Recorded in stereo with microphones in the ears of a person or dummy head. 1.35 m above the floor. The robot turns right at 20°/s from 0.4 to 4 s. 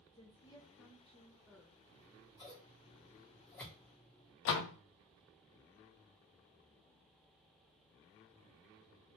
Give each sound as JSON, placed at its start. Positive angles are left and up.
{"t": 0.1, "sound": "a woman speaking", "side_deg": 20, "distance_m": 0.6}
{"t": 1.9, "sound": "scissors", "side_deg": 35, "distance_m": 1.2}
{"t": 4.5, "sound": "a door slam", "side_deg": 70, "distance_m": 0.5}